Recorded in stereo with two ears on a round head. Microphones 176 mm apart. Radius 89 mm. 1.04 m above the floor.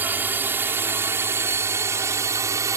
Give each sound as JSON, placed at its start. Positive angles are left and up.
{"t": 0.0, "sound": "a drone", "side_deg": -10}